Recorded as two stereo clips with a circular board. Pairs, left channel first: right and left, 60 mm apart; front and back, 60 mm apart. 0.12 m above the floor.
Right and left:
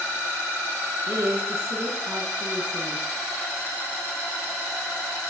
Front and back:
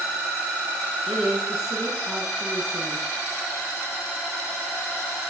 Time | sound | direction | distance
1.1 | a woman speaking | 110° left | 1.2 m